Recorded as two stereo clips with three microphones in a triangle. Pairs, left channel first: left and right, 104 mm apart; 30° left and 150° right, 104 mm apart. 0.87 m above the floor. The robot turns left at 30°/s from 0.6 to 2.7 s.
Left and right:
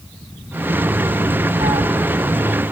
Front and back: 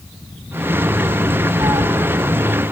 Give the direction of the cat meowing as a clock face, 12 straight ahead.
3 o'clock.